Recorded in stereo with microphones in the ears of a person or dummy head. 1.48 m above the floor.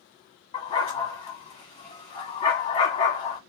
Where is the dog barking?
30° left (ahead or behind), 1.2 m.